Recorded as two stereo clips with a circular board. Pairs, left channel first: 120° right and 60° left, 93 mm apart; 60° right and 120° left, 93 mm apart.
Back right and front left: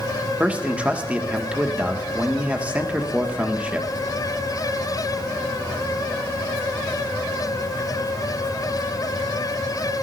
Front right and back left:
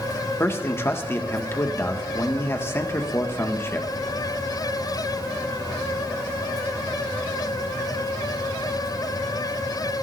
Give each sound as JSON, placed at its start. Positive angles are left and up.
{"t": 0.4, "sound": "a man speaking", "azimuth_deg": -10, "distance_m": 1.7}